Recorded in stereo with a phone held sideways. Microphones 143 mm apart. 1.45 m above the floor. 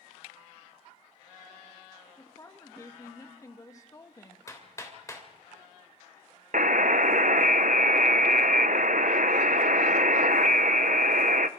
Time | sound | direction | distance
2.2 | a woman speaking | 25° left (ahead or behind) | 1.7 m
4.5 | hammering | 25° left (ahead or behind) | 3 m
6.5 | a buzzer | 70° right (ahead or behind) | 0.7 m